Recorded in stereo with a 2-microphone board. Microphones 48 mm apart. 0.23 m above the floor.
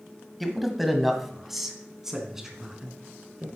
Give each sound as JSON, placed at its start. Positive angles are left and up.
{"t": 0.4, "sound": "a man speaking", "side_deg": 0, "distance_m": 1.4}